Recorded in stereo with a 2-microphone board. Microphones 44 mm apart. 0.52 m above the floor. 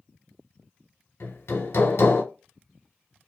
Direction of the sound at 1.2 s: 85° left.